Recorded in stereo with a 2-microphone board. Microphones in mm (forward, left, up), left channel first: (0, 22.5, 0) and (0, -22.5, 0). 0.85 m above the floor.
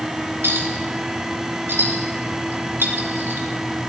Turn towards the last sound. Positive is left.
turn(degrees=-65)  # may be behind; listen again after turning